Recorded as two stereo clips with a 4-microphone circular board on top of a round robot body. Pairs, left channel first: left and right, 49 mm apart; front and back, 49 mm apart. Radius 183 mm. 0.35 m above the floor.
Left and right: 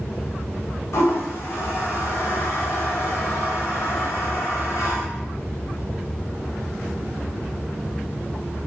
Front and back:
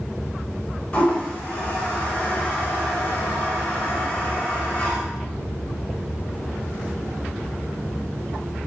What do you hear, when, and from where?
0.9 s a toilet flushing: 70° left, 0.6 m